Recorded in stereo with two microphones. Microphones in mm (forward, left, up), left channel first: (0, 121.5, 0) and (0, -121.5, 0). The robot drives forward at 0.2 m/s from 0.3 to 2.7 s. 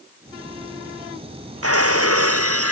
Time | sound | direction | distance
1.6 | breaking glass | 75° right (ahead or behind) | ?